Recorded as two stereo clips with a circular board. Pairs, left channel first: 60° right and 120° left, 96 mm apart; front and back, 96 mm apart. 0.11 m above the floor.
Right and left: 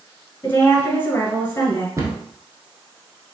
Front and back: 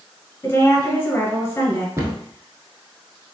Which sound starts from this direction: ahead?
A woman speaking, at 0.4 s.